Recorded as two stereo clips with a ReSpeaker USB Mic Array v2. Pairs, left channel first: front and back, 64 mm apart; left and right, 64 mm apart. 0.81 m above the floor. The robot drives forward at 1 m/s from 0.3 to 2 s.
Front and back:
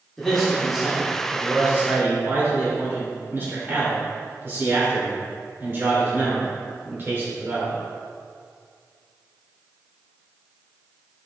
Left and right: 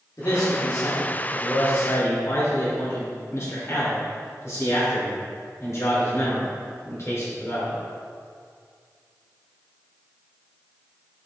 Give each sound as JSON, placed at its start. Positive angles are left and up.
{"t": 0.2, "sound": "a man speaking", "azimuth_deg": 85, "distance_m": 2.0}